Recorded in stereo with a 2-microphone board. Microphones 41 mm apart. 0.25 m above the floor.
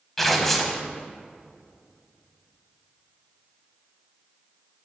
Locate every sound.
0.2 s tearing paper: 5° left (ahead or behind), 0.7 m